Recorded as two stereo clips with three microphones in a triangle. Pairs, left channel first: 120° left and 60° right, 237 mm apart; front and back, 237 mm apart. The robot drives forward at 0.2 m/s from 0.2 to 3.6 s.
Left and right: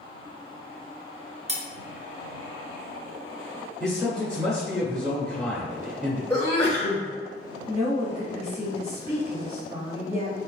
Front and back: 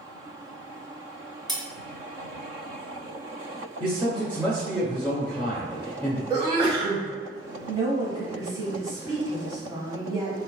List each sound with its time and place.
1.5 s cutlery clinking: 115° right, 0.8 m; by 1.6 s 120° right, 0.8 m
3.8 s a man speaking: 155° right, 1.4 m
6.3 s a sneeze: 145° left, 1.5 m
7.7 s a woman speaking: 135° right, 1.2 m